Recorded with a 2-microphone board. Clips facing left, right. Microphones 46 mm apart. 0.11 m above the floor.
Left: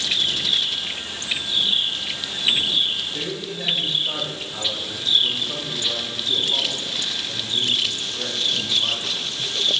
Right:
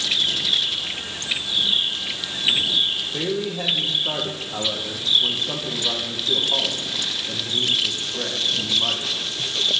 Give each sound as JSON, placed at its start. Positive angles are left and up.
{"t": 3.1, "sound": "a man speaking", "side_deg": -65, "distance_m": 2.5}